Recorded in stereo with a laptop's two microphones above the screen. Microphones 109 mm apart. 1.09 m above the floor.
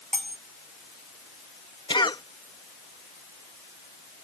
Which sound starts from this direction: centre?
Cutlery clinking, at 0.1 s.